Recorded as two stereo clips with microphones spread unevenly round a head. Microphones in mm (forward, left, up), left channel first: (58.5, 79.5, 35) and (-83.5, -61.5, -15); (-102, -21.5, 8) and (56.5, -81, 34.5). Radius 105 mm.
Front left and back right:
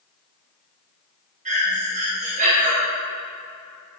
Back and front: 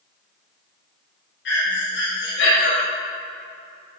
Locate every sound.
1.4 s breathing: 170° left, 4.5 m